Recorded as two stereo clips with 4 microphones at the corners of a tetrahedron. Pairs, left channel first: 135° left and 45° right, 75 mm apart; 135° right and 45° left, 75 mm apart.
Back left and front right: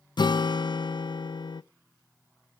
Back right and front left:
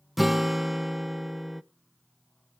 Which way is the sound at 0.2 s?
135° left.